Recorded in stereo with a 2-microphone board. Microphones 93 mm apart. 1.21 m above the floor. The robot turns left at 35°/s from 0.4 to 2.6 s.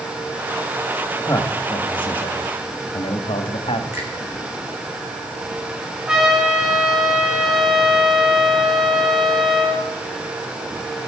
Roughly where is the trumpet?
Centre.